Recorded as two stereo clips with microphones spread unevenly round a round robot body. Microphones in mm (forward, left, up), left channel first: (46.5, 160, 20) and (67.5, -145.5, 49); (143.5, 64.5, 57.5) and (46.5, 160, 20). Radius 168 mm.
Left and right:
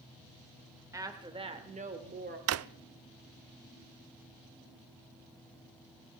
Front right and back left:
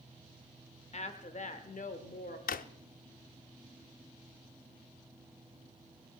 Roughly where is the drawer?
Ahead right.